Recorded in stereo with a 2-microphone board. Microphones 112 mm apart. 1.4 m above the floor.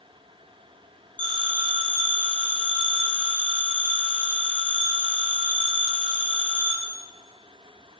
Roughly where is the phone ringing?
Right.